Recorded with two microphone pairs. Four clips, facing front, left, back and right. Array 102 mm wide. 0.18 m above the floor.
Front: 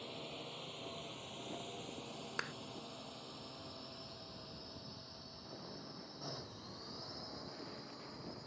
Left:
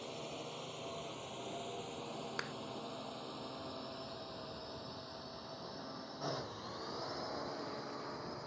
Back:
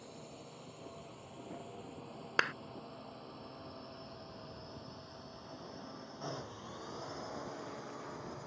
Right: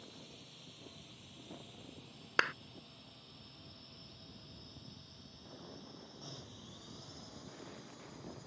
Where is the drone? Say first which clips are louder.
Left 11 dB, front 3 dB; 80° left; by 8.5 s 125° left.